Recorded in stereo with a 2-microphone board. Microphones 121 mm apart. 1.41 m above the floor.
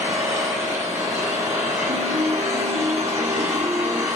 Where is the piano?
70° right (ahead or behind), 3.5 m.